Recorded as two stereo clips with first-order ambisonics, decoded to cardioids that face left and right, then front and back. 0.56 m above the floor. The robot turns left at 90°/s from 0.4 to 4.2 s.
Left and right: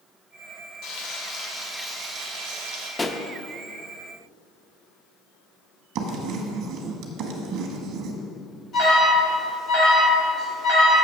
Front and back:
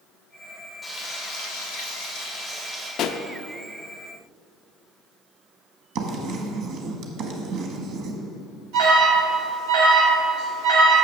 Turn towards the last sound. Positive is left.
turn(degrees=150)